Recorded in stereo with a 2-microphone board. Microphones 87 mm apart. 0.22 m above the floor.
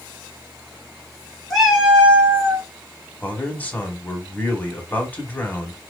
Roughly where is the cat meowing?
Centre.